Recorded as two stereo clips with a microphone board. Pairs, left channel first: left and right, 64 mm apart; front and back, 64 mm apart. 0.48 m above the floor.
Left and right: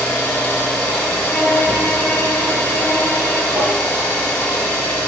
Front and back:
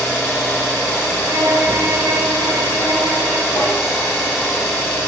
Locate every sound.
0.0 s an engine running: 45° left, 0.9 m
1.3 s a violin: 155° left, 0.8 m
3.6 s tapping: 40° right, 0.8 m